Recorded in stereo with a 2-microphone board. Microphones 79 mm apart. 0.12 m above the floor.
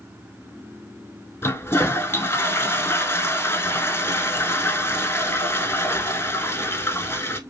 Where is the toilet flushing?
30° left (ahead or behind), 0.5 m.